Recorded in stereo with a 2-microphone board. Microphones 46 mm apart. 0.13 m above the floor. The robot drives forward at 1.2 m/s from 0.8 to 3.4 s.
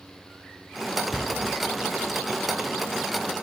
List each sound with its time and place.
1.1 s a cupboard door: 30° left (ahead or behind), 0.6 m; by 1.3 s 25° left (ahead or behind), 0.8 m